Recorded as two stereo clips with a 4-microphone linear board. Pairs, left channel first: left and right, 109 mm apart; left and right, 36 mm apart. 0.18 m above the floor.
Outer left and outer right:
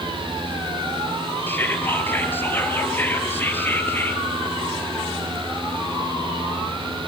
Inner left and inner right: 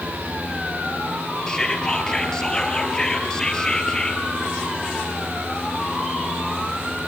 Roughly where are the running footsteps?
No running footsteps in this recording.